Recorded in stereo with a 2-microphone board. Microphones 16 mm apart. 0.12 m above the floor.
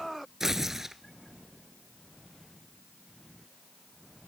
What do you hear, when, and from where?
0.4 s tearing paper: 20° right (ahead or behind), 0.6 m